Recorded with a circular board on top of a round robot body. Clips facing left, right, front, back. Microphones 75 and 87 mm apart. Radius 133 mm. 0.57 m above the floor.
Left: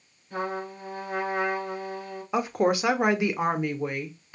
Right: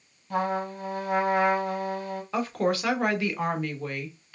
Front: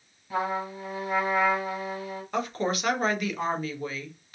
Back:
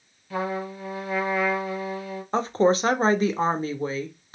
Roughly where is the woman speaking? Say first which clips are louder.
Left 3 dB, back 8 dB; behind left.